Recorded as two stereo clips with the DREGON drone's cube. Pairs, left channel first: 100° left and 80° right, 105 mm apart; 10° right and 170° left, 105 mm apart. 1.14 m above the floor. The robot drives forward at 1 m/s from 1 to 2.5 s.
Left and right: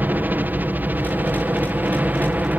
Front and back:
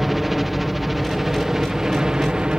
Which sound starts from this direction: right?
A helicopter, at 0.0 s.